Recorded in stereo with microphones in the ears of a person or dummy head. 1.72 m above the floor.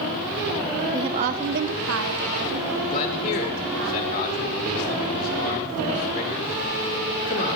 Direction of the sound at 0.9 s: 20° right (ahead or behind).